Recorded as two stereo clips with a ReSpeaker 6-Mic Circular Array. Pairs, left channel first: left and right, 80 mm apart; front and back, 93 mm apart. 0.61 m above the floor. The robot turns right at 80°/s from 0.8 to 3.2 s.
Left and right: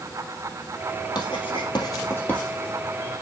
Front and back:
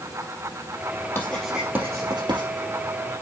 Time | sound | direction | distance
1.1 | writing | 65° left | 2.5 m